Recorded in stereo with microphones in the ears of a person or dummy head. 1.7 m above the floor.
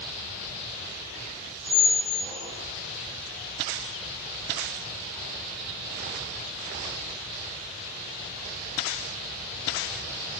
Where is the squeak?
35° right (ahead or behind), 1.9 m.